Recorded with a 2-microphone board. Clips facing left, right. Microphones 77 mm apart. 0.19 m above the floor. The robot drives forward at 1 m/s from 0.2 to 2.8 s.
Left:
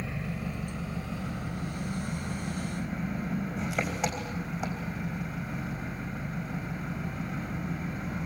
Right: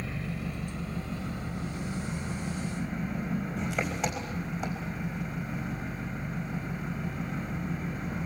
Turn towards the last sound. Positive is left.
turn(degrees=0)  # may be behind; listen again after turning